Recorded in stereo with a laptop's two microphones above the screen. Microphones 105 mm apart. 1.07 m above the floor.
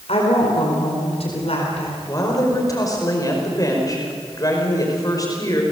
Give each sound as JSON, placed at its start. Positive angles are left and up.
{"t": 0.1, "sound": "a woman speaking", "side_deg": 70, "distance_m": 4.5}
{"t": 2.1, "sound": "a woman speaking", "side_deg": 35, "distance_m": 5.0}